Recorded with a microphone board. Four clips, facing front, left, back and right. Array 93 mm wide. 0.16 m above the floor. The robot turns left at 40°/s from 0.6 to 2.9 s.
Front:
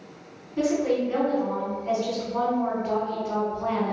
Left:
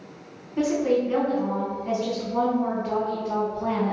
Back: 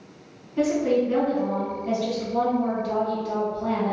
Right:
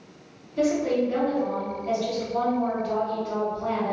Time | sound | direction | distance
0.6 | a woman speaking | 105° left | 1.9 m